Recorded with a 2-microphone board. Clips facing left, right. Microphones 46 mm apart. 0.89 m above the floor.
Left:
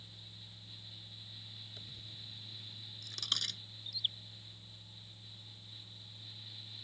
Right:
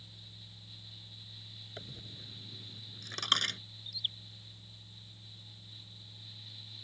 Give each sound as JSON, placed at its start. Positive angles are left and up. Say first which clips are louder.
{"t": 1.8, "sound": "a dropped coin", "louder": "right 3 dB", "side_deg": -45}
{"t": 3.9, "sound": "a bird", "louder": "even", "side_deg": 0}